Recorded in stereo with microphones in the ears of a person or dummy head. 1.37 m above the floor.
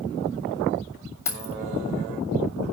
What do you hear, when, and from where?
1.2 s keys jangling: 15° left (ahead or behind), 2.5 m